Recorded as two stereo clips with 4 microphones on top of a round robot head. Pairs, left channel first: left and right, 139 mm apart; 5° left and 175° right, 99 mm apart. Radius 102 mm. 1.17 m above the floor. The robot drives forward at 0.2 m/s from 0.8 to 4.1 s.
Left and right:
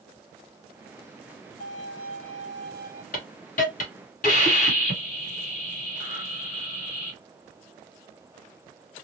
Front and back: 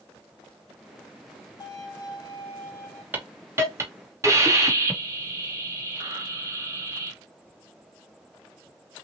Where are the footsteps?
I don't hear footsteps.